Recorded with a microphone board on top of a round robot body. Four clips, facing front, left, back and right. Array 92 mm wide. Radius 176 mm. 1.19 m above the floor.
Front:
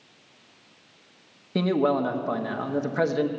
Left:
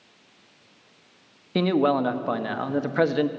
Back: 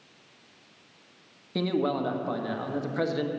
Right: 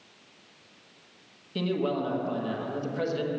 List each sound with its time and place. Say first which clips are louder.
1.6 s a man speaking: left 7 dB, front 4 dB; 75° left, 1.2 m